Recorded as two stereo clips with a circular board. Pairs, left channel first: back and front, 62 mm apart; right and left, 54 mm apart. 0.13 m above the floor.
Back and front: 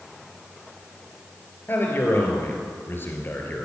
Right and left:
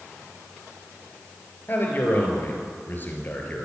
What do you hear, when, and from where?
1.7 s a man speaking: 135° right, 2.5 m